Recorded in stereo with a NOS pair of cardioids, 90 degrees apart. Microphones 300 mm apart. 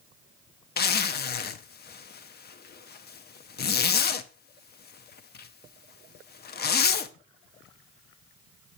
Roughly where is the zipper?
Ahead left.